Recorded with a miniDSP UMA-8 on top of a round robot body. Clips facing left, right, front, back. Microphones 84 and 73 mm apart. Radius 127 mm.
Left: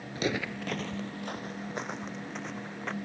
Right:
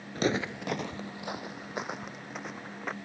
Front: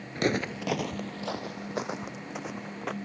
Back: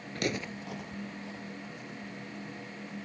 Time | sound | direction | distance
0.1 | footsteps | 55° right | ?